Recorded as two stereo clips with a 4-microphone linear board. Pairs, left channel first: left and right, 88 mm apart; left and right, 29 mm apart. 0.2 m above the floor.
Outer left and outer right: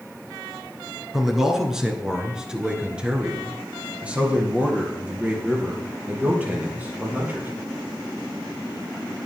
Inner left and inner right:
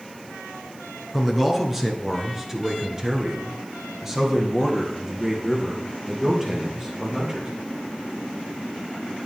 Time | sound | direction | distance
1.1 | a man speaking | 5° right (ahead or behind) | 3 m